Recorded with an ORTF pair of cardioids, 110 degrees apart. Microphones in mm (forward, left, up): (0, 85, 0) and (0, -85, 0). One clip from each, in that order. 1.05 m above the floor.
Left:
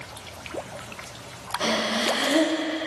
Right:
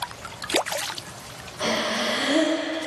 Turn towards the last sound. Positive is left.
turn(degrees=15)